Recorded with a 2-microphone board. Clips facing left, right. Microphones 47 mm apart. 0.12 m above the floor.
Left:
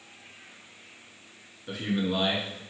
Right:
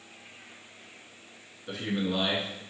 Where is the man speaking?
5° left (ahead or behind), 1.2 m.